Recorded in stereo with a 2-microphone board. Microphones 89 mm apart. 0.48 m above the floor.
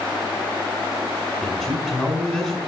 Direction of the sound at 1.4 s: Centre (ahead or behind).